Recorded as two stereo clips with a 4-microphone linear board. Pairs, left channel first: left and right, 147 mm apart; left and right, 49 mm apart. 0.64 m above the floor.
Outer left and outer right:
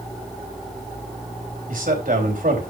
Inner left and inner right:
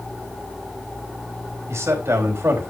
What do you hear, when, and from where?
1.7 s a man speaking: 75° right (ahead or behind), 3.5 m